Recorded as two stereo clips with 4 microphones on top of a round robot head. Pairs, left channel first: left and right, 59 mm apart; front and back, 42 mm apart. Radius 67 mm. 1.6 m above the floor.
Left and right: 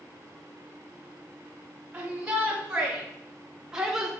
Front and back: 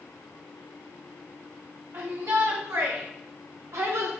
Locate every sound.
1.9 s a shout: 160° right, 3 m; by 4.1 s 170° right, 1.4 m